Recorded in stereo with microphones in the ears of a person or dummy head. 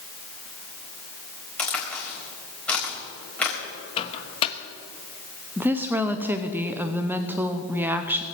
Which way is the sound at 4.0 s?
30° left (ahead or behind).